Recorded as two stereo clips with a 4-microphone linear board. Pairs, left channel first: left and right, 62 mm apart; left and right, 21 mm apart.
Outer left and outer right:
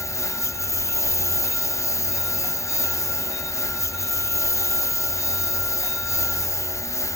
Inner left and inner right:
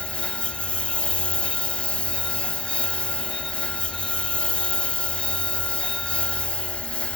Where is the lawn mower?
60° left (ahead or behind).